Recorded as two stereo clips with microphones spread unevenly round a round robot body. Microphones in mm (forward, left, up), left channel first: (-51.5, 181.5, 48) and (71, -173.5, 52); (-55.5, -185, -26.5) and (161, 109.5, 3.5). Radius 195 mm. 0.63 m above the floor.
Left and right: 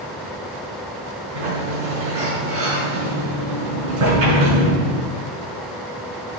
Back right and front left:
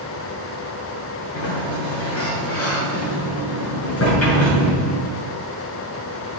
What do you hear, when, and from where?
1.3 s a sliding door: 75° right, 6.5 m